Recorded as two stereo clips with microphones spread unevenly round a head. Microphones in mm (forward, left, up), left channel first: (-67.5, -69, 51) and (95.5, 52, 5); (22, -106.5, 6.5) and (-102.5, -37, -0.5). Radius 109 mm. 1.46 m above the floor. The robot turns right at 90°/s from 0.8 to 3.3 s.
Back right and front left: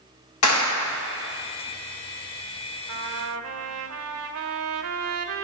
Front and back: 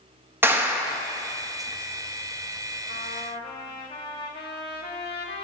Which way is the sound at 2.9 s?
5° left.